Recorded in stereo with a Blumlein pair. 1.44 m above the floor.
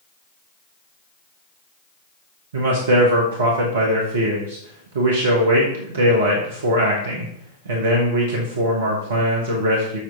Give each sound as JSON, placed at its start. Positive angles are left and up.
{"t": 2.5, "sound": "a man speaking", "azimuth_deg": -60, "distance_m": 1.2}